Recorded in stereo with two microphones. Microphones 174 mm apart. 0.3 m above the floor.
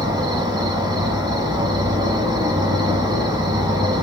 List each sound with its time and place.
0.0 s an insect: 20° right (ahead or behind), 1.1 m